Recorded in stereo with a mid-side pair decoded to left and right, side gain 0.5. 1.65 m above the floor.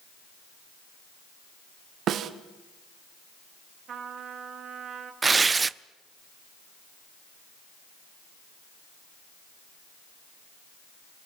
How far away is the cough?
No cough in this recording.